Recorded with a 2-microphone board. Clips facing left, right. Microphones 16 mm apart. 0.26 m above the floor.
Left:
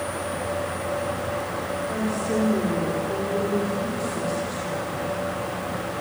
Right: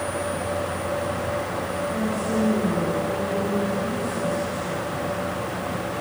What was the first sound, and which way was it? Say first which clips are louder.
A woman speaking: left 1 dB; 65° left (ahead or behind).